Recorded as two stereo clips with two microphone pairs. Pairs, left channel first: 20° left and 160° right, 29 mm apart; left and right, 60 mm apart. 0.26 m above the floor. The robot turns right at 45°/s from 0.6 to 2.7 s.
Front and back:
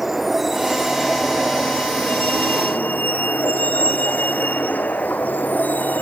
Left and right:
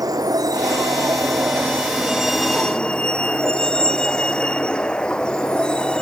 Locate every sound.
0.0 s a vehicle: 80° right; by 6.0 s 15° left